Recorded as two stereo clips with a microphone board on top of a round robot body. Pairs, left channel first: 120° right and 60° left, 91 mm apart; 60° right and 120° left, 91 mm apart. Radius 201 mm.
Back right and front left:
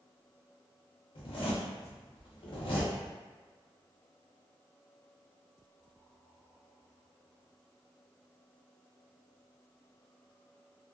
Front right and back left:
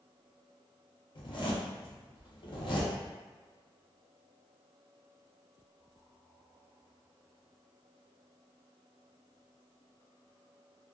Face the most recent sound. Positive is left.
turn(degrees=-95)